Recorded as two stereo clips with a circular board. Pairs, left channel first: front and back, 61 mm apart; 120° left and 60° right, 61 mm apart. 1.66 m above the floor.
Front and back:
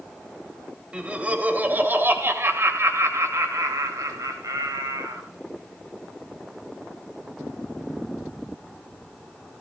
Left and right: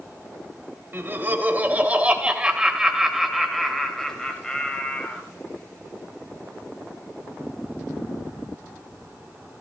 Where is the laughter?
110° right, 2.5 m; by 5.2 s 170° right, 3 m.